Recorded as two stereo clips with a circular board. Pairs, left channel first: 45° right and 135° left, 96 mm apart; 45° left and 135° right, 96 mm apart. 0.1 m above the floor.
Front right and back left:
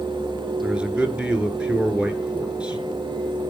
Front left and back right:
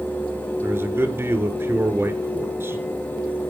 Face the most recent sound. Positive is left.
turn(degrees=-160)